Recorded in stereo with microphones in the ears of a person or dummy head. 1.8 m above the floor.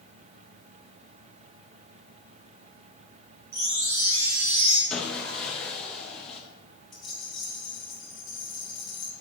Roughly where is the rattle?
Centre.